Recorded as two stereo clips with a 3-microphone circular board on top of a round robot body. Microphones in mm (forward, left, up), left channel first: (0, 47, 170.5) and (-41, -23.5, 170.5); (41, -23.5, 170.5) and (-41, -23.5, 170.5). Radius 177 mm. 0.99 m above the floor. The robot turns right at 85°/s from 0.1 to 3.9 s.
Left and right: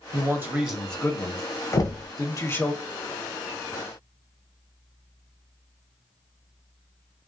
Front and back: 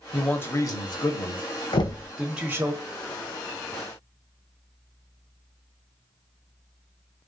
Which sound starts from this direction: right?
A man speaking, at 0.1 s.